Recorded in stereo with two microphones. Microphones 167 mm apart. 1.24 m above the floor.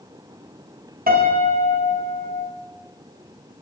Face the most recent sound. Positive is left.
turn(degrees=-60)  # may be behind; listen again after turning